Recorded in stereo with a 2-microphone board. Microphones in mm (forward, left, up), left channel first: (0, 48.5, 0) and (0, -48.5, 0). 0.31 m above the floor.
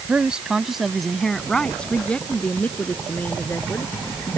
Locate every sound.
0.1 s a woman speaking: 15° right (ahead or behind); by 4.4 s 25° left (ahead or behind)